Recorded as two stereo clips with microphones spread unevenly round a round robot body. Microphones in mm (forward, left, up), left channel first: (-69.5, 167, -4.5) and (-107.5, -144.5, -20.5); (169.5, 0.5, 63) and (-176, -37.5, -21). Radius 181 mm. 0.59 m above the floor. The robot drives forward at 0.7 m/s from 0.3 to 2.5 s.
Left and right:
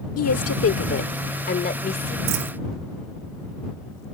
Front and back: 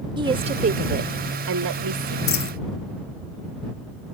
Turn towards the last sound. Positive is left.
turn(degrees=-45)